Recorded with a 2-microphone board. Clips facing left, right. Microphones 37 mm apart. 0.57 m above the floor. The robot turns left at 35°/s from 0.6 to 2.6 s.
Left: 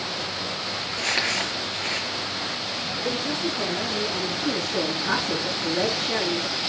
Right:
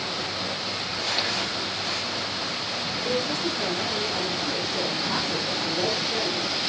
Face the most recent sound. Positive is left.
turn(degrees=75)  # may be behind; listen again after turning